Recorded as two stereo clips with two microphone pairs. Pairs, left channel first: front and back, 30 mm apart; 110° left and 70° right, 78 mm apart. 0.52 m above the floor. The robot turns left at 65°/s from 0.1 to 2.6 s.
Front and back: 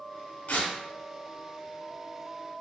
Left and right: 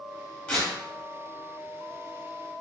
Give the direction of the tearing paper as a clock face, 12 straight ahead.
11 o'clock.